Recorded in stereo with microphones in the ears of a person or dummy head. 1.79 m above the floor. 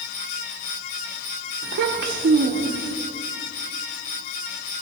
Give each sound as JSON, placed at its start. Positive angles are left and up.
{"t": 1.6, "sound": "a child speaking", "side_deg": -50, "distance_m": 1.1}